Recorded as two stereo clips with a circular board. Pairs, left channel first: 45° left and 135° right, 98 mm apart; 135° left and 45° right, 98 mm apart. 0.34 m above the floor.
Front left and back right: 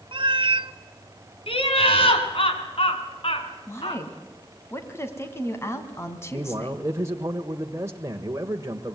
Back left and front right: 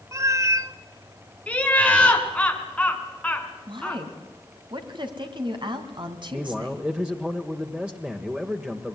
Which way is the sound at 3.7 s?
15° right.